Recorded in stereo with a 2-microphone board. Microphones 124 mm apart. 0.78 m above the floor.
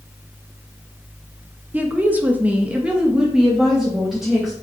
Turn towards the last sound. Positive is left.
turn(degrees=0)  # may be behind; listen again after turning